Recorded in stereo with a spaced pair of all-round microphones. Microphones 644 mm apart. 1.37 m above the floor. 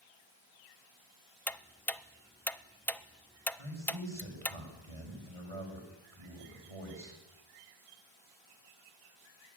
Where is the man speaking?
55° right (ahead or behind), 6.5 m.